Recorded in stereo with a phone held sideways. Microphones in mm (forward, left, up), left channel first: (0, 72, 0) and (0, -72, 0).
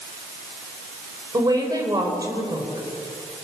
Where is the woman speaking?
25° right (ahead or behind), 4.5 m.